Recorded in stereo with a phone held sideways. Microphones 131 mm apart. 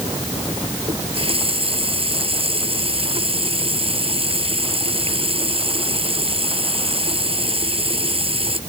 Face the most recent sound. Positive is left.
turn(degrees=-45)  # may be behind; listen again after turning